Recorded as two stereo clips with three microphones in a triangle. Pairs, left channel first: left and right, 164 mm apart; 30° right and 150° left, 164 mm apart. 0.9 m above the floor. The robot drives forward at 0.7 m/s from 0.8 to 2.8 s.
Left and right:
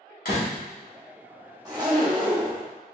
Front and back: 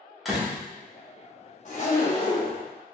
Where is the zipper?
30° right, 1.1 m; by 2.6 s 90° right, 0.8 m.